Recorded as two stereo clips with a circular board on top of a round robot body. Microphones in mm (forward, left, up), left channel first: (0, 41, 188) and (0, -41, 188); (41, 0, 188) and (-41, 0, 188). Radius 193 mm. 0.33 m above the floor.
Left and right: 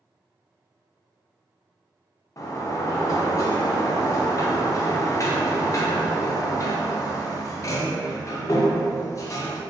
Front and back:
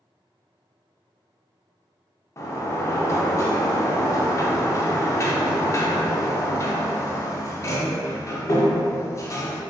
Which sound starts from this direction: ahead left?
A sliding door, at 2.4 s.